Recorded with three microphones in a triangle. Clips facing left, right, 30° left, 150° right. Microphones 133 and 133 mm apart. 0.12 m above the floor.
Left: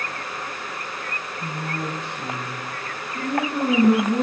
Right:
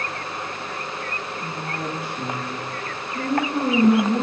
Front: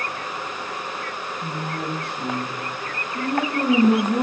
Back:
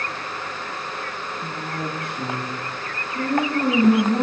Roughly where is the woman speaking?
Behind.